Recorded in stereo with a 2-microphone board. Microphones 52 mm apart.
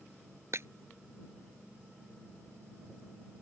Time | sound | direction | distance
0.5 | breaking glass | 60° right (ahead or behind) | ?